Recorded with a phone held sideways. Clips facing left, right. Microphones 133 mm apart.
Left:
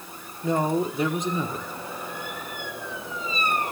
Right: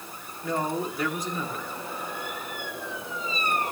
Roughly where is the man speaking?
Left.